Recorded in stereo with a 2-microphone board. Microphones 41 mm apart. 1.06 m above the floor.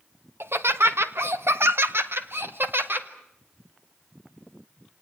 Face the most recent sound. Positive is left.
turn(degrees=-55)  # may be behind; listen again after turning